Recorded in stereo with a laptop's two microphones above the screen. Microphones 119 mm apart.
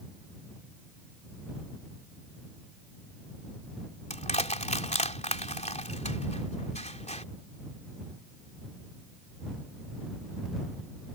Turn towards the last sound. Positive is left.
turn(degrees=75)  # may be behind; listen again after turning